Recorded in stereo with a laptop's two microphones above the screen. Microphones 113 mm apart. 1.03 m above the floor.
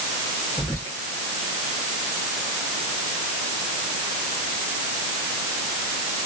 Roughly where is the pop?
I don't hear a pop.